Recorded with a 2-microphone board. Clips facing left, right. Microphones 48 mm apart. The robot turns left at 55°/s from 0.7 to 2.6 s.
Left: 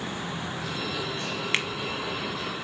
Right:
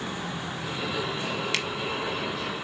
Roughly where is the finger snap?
Left.